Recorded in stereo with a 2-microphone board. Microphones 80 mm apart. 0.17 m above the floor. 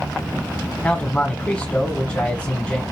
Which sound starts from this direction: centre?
A man speaking, at 0.8 s.